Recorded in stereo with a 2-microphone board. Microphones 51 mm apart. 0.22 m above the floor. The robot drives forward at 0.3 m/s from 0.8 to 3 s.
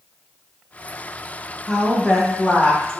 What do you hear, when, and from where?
1.7 s a woman speaking: 10° left (ahead or behind), 1.3 m